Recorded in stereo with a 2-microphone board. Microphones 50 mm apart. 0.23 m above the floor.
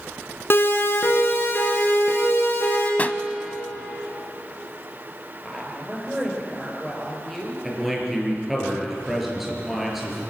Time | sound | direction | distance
0.5 | a siren | 50° left (ahead or behind) | 2.5 m
3.0 | a pop | 35° left (ahead or behind) | 0.7 m
5.4 | a woman speaking | 10° left (ahead or behind) | 4.5 m
7.6 | a man speaking | centre (ahead or behind) | 5 m